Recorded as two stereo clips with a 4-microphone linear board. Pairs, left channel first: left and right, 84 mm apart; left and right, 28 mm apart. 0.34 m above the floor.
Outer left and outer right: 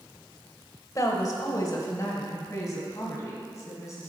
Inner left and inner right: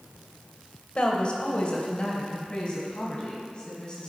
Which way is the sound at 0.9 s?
40° left (ahead or behind).